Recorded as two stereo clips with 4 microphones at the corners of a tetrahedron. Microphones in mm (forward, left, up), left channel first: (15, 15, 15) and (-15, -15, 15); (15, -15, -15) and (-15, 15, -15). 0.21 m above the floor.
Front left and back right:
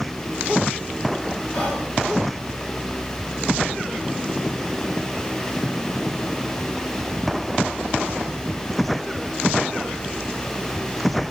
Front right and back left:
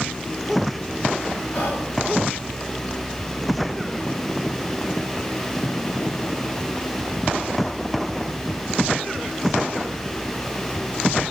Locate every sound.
1.5 s whispering: 15° right, 2 m